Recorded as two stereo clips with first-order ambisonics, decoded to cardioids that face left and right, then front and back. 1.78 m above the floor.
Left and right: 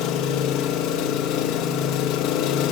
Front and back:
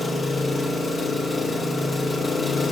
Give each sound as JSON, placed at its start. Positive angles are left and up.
{"t": 0.0, "sound": "an engine running", "azimuth_deg": 85, "distance_m": 1.6}